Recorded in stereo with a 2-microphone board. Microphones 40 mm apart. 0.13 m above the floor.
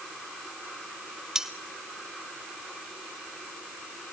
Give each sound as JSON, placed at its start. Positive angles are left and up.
{"t": 1.4, "sound": "cutlery clinking", "side_deg": -15, "distance_m": 1.5}